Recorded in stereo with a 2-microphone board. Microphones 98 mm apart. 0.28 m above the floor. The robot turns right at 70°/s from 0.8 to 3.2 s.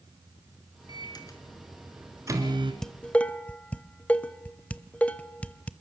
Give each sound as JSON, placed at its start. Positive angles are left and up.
{"t": 0.9, "sound": "a microwave", "side_deg": 60, "distance_m": 2.5}
{"t": 2.8, "sound": "dishes clattering", "side_deg": 5, "distance_m": 0.7}